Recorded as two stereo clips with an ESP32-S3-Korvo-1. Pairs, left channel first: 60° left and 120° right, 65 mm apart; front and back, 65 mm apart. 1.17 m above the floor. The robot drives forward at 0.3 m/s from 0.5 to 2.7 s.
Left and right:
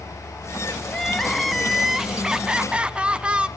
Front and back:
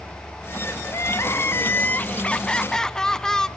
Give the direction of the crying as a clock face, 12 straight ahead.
1 o'clock.